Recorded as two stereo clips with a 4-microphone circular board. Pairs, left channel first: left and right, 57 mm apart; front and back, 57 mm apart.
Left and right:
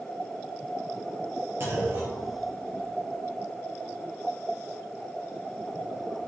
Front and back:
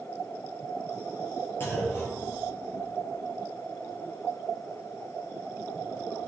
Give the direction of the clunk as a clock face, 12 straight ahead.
2 o'clock.